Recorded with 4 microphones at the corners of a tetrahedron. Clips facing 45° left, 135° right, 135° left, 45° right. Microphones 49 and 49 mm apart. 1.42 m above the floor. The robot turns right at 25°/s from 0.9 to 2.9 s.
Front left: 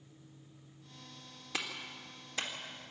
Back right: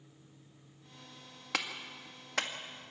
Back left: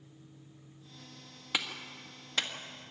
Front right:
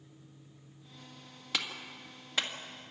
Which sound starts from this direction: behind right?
A clap, at 1.5 s.